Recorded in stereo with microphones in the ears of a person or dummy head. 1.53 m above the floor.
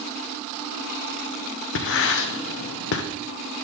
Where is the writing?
75° left (ahead or behind), 0.8 m.